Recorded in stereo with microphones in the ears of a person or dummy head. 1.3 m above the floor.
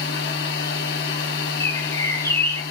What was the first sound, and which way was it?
A machine running, 60° left (ahead or behind).